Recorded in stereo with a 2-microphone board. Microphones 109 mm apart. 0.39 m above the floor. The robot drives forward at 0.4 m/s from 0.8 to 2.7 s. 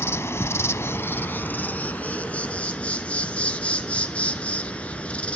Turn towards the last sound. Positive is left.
turn(degrees=10)  # may be behind; listen again after turning